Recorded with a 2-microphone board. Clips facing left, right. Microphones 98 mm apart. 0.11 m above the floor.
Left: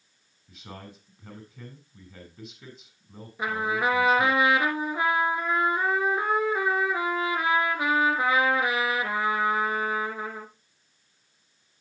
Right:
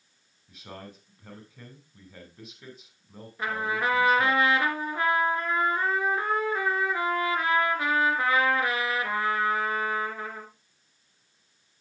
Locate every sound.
0.5 s a man speaking: centre (ahead or behind), 5 m
3.4 s a trumpet: 10° left (ahead or behind), 2.5 m